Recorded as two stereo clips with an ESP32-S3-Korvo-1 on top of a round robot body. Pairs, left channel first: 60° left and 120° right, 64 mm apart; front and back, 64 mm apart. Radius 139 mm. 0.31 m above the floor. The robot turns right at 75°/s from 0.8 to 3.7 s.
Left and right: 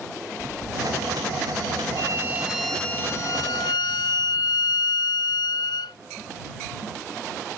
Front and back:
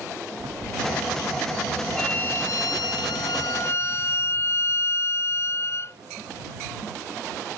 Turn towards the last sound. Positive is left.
turn(degrees=50)